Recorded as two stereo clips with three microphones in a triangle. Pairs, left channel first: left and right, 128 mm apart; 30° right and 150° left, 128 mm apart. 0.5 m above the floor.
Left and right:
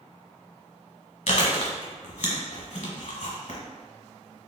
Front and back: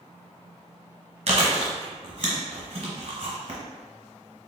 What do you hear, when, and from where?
1.3 s chewing: 120° left, 1.3 m